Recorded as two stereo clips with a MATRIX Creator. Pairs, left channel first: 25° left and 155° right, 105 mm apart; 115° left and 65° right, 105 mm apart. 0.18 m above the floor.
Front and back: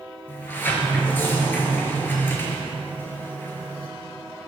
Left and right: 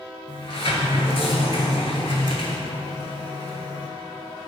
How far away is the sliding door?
About 0.5 m.